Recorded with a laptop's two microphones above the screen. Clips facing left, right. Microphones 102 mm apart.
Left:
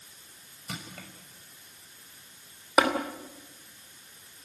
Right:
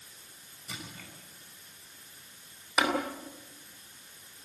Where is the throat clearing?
No throat clearing in this recording.